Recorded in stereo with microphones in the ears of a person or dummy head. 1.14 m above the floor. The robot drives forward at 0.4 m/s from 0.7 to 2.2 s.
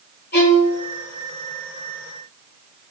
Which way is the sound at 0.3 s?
50° left (ahead or behind).